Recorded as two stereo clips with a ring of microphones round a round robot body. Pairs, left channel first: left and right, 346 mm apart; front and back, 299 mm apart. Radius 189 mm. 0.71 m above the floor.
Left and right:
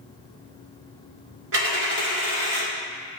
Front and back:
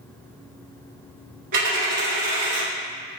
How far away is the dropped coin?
About 1.4 m.